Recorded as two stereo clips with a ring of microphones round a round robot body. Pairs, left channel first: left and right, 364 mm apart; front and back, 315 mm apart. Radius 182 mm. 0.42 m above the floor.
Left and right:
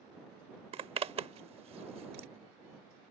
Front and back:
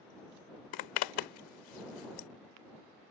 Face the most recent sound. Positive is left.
turn(degrees=-15)